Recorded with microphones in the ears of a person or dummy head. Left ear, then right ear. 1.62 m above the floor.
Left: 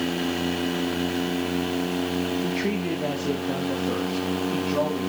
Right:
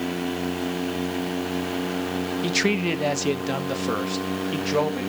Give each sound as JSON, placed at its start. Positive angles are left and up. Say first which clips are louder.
{"t": 2.4, "sound": "a man speaking", "louder": "right 4 dB", "side_deg": -75, "distance_m": 0.9}